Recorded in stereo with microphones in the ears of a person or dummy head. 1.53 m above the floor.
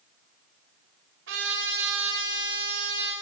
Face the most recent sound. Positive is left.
turn(degrees=-75)  # may be behind; listen again after turning